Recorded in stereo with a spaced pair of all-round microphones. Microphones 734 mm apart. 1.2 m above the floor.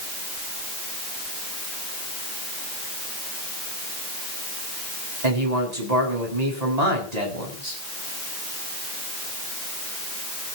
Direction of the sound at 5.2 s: 60° right (ahead or behind).